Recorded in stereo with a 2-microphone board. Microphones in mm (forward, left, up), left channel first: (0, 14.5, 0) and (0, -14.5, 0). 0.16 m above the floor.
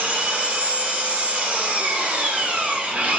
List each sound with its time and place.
0.0 s an engine running: 55° right (ahead or behind), 1.1 m